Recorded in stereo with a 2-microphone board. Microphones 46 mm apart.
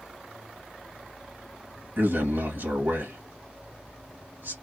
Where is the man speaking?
55° right (ahead or behind), 1.5 m.